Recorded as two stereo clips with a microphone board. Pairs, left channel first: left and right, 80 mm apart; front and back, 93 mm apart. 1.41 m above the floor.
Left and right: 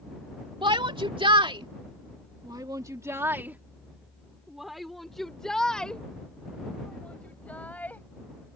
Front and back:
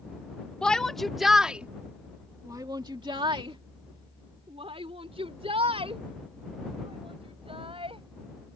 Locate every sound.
0.6 s a shout: 80° right; by 8.0 s 160° left